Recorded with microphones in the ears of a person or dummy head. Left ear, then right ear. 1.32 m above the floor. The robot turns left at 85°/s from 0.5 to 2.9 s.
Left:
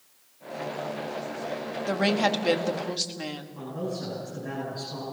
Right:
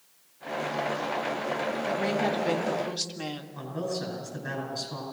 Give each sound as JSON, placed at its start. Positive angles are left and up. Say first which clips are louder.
{"t": 1.9, "sound": "a woman speaking", "louder": "left 5 dB", "azimuth_deg": 85, "distance_m": 1.8}
{"t": 3.5, "sound": "a man speaking", "louder": "right 2 dB", "side_deg": -80, "distance_m": 9.5}